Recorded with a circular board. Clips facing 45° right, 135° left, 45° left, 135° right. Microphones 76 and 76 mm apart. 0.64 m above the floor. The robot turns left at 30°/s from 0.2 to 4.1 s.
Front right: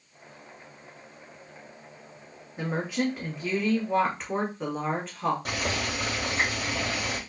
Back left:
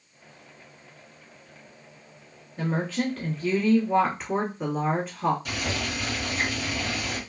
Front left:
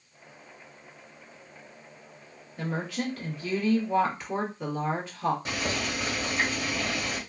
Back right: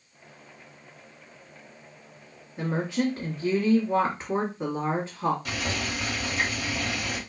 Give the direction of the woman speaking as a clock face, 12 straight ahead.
3 o'clock.